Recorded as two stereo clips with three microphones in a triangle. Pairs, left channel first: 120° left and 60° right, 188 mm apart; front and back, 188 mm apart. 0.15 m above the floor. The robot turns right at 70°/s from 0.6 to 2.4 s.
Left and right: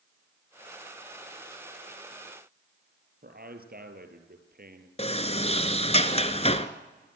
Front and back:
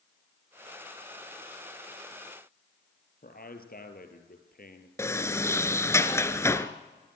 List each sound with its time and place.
3.2 s a man speaking: 30° right, 3.5 m
5.0 s a sliding door: 70° left, 1.2 m